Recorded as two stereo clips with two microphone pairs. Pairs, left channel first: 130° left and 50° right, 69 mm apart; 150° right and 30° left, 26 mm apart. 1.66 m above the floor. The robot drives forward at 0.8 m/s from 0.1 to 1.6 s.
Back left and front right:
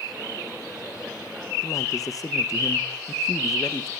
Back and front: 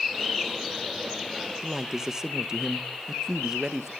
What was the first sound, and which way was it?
A man speaking, 95° left.